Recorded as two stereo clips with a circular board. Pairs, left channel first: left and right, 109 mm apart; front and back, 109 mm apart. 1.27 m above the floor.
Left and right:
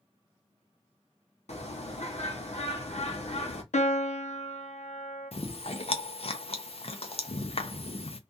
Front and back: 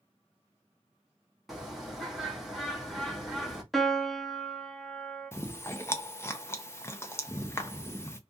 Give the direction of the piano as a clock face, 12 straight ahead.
9 o'clock.